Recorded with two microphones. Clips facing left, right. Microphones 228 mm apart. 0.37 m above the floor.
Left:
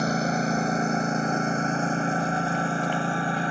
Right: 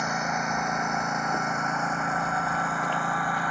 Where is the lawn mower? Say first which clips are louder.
Left 7 dB; 35° left (ahead or behind); by 3.5 s 30° left (ahead or behind).